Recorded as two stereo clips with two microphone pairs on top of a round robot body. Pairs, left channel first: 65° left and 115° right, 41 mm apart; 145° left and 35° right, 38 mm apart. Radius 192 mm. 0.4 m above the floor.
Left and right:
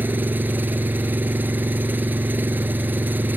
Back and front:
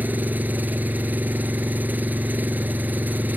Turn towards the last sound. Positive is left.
turn(degrees=-75)